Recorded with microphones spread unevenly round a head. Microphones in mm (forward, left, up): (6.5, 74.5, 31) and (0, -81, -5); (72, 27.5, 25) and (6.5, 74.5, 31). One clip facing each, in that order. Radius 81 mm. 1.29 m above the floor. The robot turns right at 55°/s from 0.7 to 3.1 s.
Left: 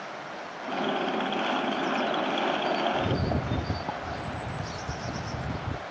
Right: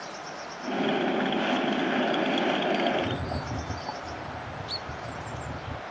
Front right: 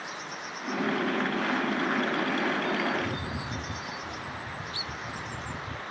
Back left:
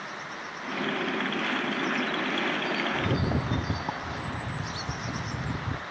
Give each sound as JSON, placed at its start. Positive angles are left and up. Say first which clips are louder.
{"t": 2.9, "sound": "a rattle", "louder": "left 2 dB, back left 4 dB", "azimuth_deg": 125, "distance_m": 0.6}